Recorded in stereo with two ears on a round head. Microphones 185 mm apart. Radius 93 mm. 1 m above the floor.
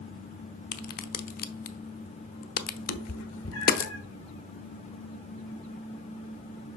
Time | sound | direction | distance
0.7 | a crack | 45° left (ahead or behind) | 0.8 m
2.9 | a cat meowing | 70° left (ahead or behind) | 1.3 m